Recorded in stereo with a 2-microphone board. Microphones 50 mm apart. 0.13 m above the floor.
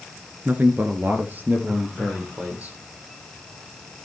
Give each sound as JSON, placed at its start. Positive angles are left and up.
{"t": 0.5, "sound": "a man speaking", "side_deg": -40, "distance_m": 1.4}